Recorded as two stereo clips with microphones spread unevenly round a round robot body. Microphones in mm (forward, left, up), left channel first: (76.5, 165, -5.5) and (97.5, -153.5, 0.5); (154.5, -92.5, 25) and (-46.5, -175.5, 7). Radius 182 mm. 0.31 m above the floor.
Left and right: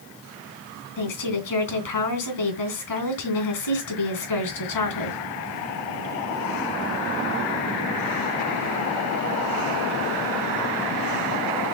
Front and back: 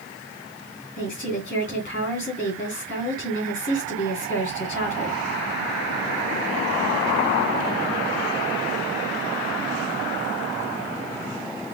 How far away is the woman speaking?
About 3 m.